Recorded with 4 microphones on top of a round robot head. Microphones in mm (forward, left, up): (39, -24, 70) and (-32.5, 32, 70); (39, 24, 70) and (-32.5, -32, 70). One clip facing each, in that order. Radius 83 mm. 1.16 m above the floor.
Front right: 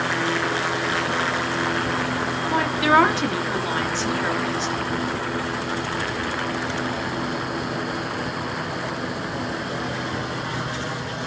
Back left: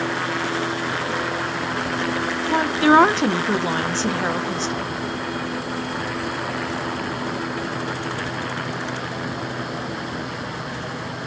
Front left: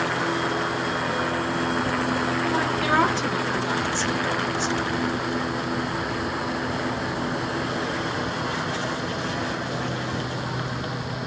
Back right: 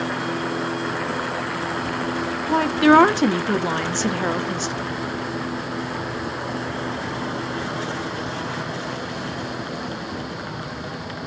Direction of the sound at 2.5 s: 165° right.